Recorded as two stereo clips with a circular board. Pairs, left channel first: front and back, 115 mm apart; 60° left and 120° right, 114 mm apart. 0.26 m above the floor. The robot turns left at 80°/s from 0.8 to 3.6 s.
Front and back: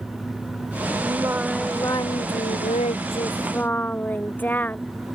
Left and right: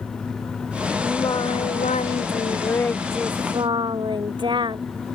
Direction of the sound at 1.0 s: 130° left.